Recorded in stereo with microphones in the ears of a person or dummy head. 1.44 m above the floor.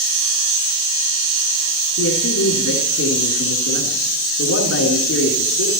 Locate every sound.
2.0 s a man speaking: 85° left, 3.5 m